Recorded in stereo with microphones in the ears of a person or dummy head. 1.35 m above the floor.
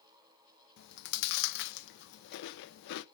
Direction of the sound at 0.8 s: 60° left (ahead or behind).